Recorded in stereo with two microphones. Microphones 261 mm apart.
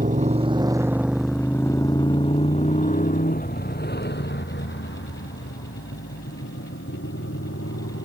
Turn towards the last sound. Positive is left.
turn(degrees=55)  # may be behind; listen again after turning